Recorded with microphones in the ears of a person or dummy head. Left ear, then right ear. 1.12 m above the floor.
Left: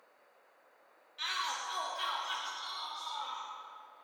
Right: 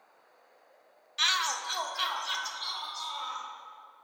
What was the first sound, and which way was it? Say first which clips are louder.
A shout: right 8 dB; 55° right (ahead or behind).